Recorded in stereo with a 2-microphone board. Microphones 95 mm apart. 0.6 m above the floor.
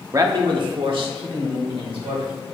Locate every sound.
0.1 s a man speaking: 35° right (ahead or behind), 0.7 m; by 2.3 s 75° right (ahead or behind), 2.5 m